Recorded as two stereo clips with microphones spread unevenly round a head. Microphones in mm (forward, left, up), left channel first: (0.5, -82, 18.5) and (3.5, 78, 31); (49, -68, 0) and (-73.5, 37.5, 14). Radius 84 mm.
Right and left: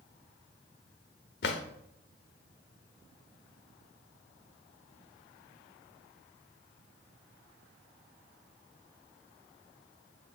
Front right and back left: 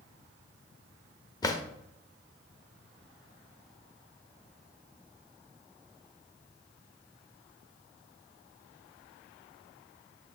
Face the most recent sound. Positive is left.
turn(degrees=-110)